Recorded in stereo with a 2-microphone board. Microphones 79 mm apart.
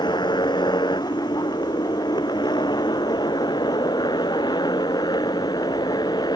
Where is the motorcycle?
90° left; by 6.4 s 70° left (ahead or behind).